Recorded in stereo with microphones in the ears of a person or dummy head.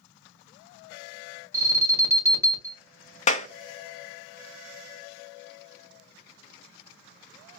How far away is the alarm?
About 1.8 m.